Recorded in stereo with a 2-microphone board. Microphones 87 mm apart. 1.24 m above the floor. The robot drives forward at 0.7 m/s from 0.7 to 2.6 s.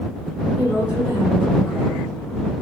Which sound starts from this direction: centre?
A woman speaking, at 0.6 s.